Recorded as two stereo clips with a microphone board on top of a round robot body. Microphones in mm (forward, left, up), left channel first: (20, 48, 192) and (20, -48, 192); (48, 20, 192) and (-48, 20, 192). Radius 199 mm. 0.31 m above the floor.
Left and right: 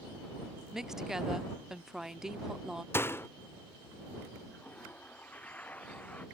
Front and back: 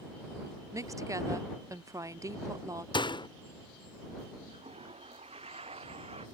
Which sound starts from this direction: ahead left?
A door slam, at 2.9 s.